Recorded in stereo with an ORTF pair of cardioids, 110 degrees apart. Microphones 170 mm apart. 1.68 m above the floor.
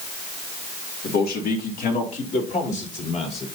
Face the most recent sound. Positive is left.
turn(degrees=40)